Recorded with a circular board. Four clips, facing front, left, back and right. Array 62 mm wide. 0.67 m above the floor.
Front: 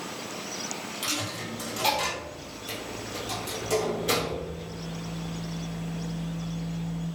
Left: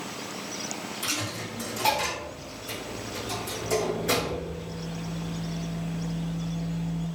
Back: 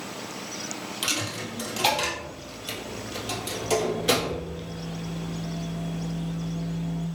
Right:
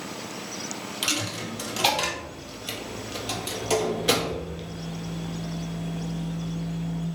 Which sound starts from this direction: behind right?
A dropped coin, at 1.0 s.